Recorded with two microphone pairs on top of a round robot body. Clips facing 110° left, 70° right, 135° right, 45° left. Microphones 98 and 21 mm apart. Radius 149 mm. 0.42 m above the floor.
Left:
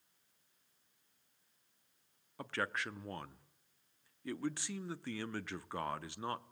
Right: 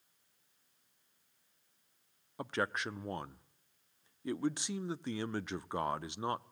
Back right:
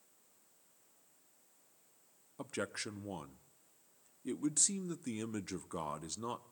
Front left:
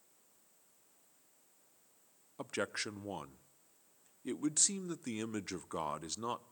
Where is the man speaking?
15° right, 0.8 m.